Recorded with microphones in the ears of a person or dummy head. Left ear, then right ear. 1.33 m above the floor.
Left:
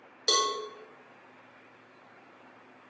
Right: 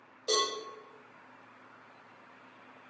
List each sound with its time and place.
0.3 s a cowbell: 50° left (ahead or behind), 1.3 m